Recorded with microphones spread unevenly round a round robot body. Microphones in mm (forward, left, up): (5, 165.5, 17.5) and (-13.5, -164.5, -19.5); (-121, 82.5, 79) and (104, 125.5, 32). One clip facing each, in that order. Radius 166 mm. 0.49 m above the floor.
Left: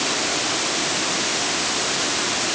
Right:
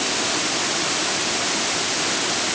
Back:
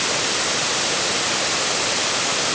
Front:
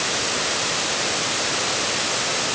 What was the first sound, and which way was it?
Only background noise.